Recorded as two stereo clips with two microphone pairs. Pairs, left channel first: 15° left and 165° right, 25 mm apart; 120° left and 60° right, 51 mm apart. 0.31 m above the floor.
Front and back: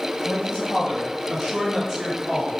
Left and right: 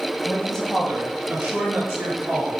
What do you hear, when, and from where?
0.2 s a woman speaking: 60° left, 1.7 m; by 2.5 s 70° right, 2.5 m